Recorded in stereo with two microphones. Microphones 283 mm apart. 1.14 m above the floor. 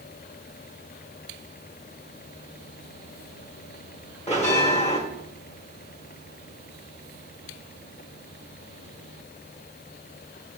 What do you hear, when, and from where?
4.3 s a bell: 25° left (ahead or behind), 1.2 m